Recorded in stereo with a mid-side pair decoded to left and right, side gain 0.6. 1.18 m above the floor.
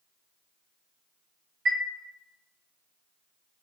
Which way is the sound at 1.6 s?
50° right.